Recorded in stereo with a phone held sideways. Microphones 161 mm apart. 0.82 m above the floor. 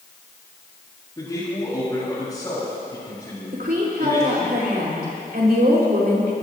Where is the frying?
I don't hear frying.